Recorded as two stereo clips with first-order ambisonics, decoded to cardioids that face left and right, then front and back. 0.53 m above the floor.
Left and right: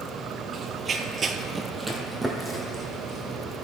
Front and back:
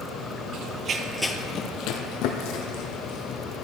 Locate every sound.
0.5 s running footsteps: 155° right, 0.8 m; by 3.4 s 5° left, 2.0 m